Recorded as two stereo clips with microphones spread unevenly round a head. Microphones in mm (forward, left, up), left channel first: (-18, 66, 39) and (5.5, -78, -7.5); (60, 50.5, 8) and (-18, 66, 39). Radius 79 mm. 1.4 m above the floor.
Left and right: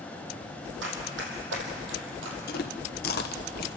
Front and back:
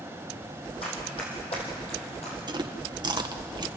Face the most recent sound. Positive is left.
turn(degrees=130)